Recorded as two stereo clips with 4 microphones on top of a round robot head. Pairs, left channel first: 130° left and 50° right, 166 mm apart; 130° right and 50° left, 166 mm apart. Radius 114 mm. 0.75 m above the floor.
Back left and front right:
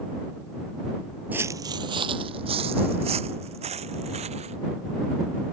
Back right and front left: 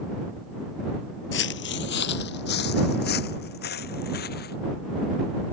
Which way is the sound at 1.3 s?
125° right.